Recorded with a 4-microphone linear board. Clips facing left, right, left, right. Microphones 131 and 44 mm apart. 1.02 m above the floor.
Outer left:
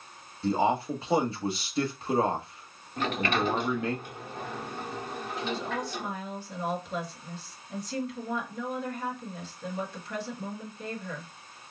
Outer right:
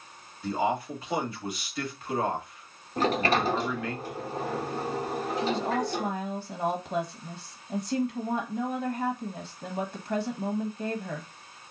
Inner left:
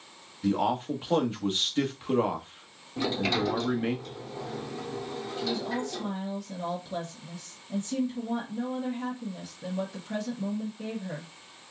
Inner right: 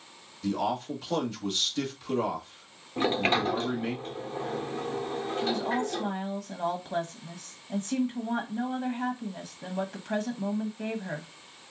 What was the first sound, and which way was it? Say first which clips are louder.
A man speaking: outer left 2 dB, inner left 3 dB; 30° left (ahead or behind).